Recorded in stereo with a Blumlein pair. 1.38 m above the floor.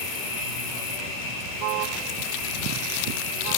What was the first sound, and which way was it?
An insect, 40° left.